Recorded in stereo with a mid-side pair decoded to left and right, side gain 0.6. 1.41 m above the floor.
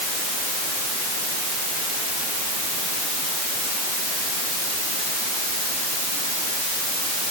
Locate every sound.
Only background noise.